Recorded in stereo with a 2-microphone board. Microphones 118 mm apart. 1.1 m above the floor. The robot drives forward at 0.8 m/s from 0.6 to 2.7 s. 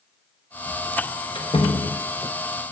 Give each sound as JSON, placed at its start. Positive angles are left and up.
{"t": 1.4, "sound": "a door slam", "side_deg": 45, "distance_m": 1.0}